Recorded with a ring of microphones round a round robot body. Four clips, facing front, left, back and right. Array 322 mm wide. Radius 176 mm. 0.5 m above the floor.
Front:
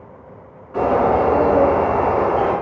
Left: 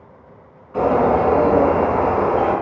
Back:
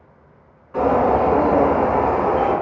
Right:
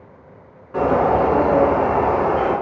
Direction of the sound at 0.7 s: 85° right.